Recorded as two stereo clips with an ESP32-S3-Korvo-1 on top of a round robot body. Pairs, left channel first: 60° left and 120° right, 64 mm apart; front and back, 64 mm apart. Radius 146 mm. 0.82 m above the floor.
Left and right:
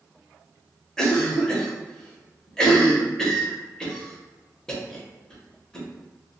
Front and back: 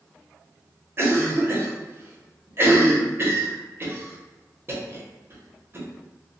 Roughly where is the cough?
Behind left.